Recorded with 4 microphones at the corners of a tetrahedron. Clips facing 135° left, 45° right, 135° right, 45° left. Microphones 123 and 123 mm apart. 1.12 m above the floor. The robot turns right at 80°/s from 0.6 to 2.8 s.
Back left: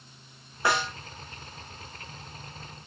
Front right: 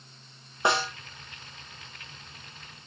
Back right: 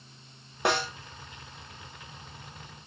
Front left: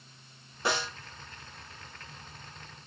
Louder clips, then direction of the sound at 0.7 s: Front right 1 dB, back right 4 dB; 115° right.